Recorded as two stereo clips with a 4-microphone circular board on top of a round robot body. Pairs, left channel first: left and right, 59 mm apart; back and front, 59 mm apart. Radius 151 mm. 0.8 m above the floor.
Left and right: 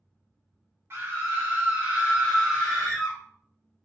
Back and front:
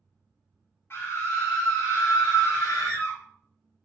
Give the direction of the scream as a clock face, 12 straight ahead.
4 o'clock.